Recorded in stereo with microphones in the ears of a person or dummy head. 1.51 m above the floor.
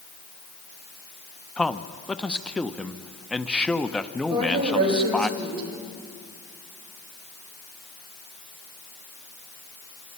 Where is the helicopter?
No helicopter in this recording.